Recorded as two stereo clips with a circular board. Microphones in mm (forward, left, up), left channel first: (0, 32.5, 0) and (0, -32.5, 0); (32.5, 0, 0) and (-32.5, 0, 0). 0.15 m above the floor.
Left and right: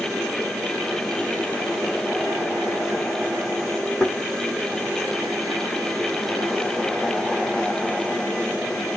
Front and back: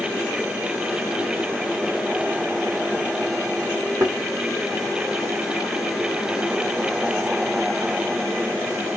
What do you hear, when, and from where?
4.0 s a thud: 160° left, 2.5 m